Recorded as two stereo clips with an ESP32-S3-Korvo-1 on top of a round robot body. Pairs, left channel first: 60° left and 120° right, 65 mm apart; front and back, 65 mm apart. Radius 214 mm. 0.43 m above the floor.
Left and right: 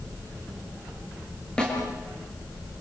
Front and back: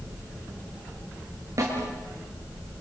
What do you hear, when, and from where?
1.6 s a snare drum: 135° left, 6 m